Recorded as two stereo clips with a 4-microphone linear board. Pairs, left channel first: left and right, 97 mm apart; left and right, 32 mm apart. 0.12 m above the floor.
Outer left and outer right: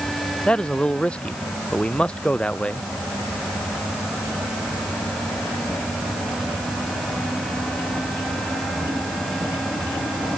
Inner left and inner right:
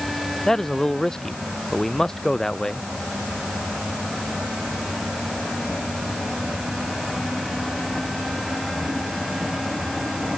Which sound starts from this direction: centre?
A man speaking, at 0.5 s.